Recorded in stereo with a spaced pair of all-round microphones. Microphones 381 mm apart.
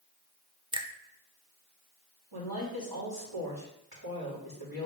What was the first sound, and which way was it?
A finger snap, 15° right (ahead or behind).